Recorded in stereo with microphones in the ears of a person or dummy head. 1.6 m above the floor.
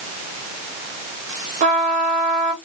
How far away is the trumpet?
About 1.0 m.